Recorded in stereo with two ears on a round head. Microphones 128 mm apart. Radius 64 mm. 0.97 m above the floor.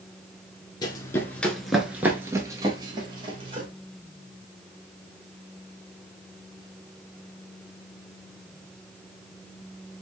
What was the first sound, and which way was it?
Running footsteps, 30° left (ahead or behind).